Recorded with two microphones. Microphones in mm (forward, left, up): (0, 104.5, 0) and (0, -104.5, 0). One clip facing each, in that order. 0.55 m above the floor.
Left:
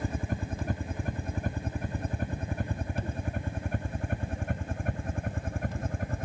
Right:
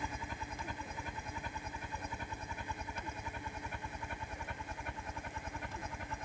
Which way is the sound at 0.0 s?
55° left (ahead or behind).